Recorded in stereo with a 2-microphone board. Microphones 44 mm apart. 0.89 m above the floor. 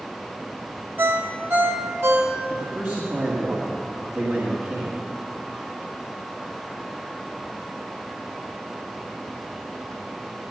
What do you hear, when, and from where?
1.0 s a ringtone: 55° right (ahead or behind), 1.4 m
2.5 s a man speaking: 50° right (ahead or behind), 1.7 m